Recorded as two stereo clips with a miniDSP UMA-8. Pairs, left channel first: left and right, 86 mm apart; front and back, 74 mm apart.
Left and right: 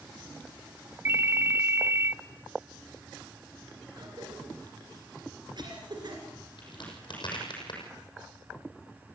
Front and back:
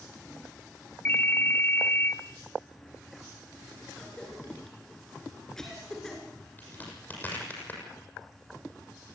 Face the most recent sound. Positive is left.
turn(degrees=65)